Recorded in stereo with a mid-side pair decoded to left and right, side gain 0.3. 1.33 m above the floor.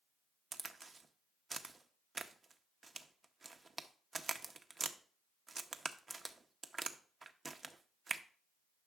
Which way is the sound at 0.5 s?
45° right.